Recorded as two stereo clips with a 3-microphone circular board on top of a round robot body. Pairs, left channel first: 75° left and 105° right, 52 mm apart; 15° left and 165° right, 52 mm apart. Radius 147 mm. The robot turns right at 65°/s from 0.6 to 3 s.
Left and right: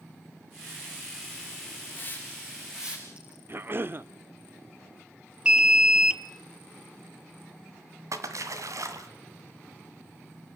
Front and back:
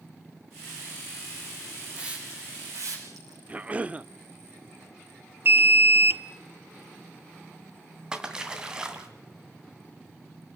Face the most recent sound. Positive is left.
turn(degrees=-90)